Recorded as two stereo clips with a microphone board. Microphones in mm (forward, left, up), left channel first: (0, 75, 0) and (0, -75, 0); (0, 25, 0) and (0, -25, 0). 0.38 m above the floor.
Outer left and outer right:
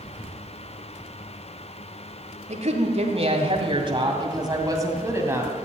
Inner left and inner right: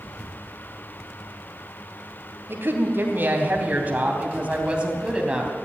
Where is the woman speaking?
50° right (ahead or behind), 2.5 m; by 5.5 s 15° right (ahead or behind), 2.5 m.